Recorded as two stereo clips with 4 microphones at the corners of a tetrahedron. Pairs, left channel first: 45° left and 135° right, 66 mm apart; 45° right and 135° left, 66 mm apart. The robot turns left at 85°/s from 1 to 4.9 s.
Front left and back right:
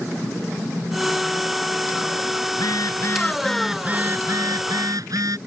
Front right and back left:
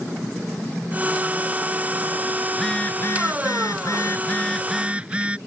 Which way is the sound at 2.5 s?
50° left.